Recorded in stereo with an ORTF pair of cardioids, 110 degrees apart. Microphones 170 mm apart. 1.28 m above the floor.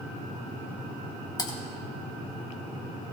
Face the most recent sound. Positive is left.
turn(degrees=25)